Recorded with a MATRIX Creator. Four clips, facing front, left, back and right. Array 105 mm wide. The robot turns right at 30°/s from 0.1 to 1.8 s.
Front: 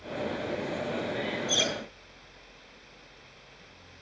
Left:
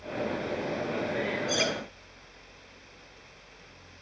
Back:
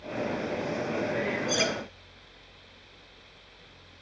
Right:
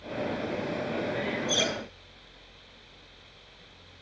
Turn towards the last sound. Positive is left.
turn(degrees=150)